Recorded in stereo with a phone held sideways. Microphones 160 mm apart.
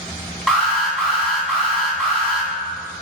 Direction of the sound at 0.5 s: 5° left (ahead or behind).